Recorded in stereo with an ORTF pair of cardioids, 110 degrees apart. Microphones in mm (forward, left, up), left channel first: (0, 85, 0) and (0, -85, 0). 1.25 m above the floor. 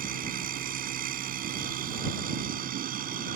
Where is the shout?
No shout in this recording.